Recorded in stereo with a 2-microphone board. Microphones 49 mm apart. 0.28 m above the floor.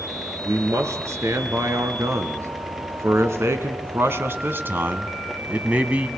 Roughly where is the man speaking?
Right.